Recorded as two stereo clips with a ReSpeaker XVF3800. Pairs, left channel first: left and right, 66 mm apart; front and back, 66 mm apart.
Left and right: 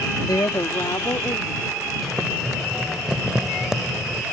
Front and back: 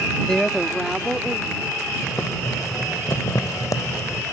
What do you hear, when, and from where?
0.2 s a woman speaking: 80° left; by 1.8 s 105° left
2.0 s boiling: 10° right